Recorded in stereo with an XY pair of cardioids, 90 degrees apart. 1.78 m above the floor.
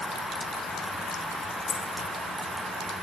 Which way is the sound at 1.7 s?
55° left.